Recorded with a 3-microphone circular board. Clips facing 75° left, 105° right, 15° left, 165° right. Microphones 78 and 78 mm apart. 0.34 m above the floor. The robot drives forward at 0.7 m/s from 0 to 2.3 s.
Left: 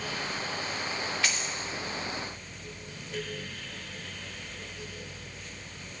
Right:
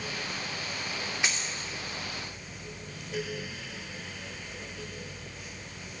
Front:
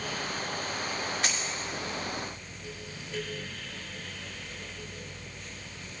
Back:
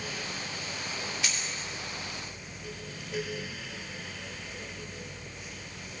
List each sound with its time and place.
1.2 s a dropped coin: 30° right, 2.5 m